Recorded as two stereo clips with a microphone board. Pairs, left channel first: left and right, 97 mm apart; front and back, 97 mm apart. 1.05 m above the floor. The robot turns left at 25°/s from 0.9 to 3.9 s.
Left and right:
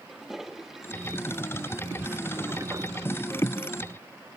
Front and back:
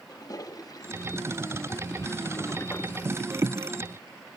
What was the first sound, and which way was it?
A toilet flushing, 5° right.